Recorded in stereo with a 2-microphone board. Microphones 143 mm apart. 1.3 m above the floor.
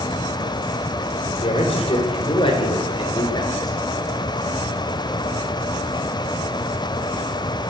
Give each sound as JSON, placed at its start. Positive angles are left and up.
{"t": 1.4, "sound": "a man speaking", "side_deg": 45, "distance_m": 4.5}